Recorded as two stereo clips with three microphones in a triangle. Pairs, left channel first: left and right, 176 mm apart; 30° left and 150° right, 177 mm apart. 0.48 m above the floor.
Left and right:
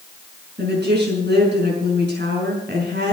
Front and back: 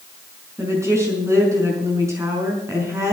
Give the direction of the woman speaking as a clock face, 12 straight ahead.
3 o'clock.